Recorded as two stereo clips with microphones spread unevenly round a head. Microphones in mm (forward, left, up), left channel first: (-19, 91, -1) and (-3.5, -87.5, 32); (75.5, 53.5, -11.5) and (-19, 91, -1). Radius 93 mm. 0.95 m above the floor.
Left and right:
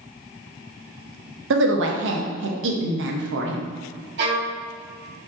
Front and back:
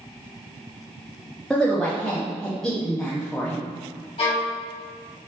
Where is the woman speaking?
110° right, 0.7 m.